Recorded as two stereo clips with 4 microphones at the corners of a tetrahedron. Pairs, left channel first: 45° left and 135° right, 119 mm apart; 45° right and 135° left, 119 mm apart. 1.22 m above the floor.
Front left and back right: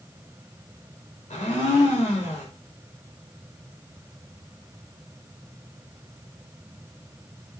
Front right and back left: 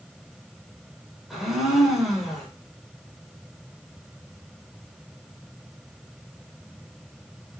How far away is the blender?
About 5 m.